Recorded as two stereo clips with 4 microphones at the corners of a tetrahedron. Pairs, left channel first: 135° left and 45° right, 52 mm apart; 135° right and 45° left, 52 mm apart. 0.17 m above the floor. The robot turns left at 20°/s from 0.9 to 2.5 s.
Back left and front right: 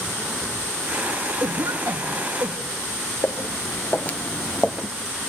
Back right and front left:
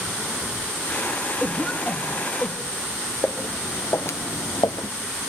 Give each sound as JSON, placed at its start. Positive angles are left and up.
{"t": 1.4, "sound": "a cough", "azimuth_deg": -40, "distance_m": 5.5}
{"t": 3.2, "sound": "footsteps", "azimuth_deg": 175, "distance_m": 2.5}